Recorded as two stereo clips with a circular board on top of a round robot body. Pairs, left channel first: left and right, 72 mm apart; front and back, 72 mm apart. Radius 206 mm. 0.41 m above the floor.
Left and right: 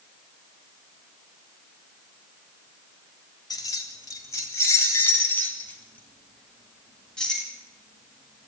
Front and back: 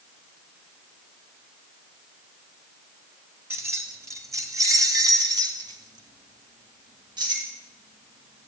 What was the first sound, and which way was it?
Keys jangling, 125° left.